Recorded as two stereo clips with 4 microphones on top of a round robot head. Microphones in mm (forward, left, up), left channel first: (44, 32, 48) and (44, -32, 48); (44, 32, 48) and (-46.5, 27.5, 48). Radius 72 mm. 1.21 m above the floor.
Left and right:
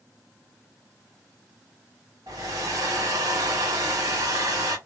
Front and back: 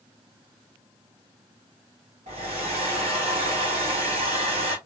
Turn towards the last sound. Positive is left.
turn(degrees=-150)